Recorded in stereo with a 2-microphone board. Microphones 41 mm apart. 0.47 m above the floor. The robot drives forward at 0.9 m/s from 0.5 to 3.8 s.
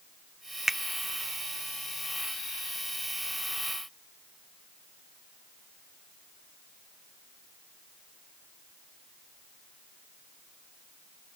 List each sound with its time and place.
0.7 s a finger snap: 5° right (ahead or behind)